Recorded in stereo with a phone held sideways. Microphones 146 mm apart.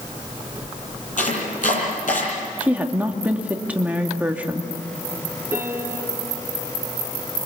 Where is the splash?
I don't hear a splash.